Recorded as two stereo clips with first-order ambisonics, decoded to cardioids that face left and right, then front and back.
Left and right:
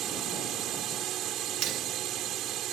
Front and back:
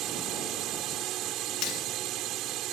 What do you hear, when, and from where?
0.0 s a drone: 135° right
1.6 s cutlery clinking: 45° right